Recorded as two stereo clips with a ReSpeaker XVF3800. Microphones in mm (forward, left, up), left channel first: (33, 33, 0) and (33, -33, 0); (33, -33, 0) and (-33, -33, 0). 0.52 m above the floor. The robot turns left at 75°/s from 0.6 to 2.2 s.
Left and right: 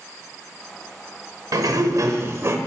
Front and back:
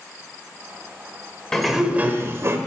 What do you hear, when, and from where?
1.5 s a sliding door: 80° right, 0.8 m; by 2.6 s 135° right, 0.8 m